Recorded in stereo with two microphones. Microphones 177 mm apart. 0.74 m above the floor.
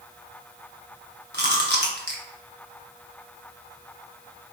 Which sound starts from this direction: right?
Chewing, at 1.3 s.